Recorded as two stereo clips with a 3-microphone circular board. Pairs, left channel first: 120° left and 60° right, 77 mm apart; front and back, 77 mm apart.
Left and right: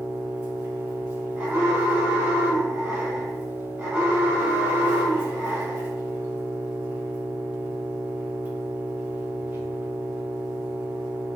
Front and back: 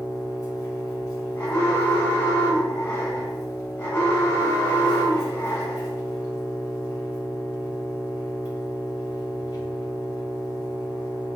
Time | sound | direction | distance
0.0 | an engine running | 10° right | 1.7 m
1.4 | an alarm | 20° right | 0.9 m